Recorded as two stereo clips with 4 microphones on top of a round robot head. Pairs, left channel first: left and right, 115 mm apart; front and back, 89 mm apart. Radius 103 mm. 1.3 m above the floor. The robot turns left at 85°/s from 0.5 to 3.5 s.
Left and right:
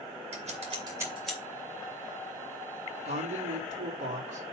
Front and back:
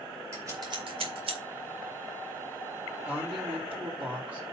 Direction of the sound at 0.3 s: 115° right.